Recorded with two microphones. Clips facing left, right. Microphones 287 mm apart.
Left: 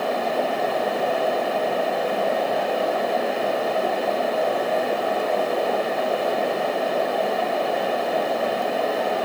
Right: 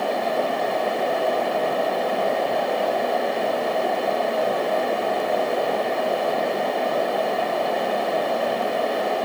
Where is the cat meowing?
I don't hear a cat meowing.